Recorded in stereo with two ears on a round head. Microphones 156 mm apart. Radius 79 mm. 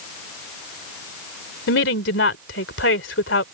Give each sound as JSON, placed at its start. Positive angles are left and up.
{"t": 1.7, "sound": "a woman speaking", "side_deg": 75}